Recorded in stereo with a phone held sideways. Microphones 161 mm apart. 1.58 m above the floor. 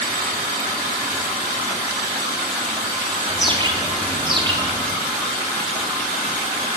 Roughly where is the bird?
Right.